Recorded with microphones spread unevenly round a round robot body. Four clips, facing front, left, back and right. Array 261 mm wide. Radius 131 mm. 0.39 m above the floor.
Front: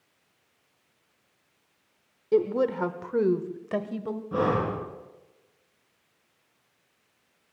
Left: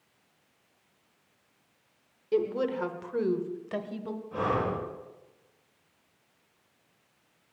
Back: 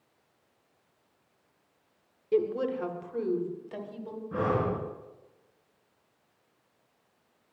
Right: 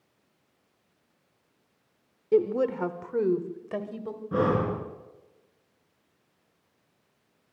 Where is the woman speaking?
65° right, 1.2 m; by 4.2 s 5° left, 2 m.